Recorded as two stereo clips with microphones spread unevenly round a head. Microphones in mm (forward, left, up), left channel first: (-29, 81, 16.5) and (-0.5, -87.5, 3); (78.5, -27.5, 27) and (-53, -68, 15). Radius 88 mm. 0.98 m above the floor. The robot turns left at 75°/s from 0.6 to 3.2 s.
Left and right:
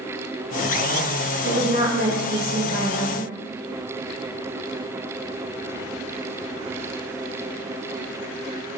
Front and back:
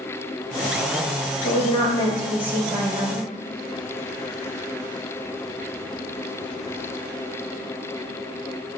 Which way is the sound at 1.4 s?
15° right.